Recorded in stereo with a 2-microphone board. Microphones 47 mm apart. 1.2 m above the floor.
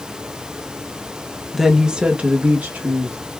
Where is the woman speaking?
Centre (ahead or behind), 1.0 m; by 3.2 s 60° right (ahead or behind), 1.6 m.